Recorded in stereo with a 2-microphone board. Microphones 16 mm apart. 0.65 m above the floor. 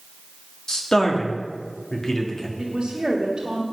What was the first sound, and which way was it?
A man speaking, 40° left (ahead or behind).